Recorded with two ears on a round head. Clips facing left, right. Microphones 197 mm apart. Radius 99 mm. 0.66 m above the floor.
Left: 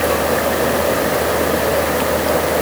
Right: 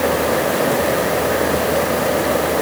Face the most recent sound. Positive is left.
No sound to turn to.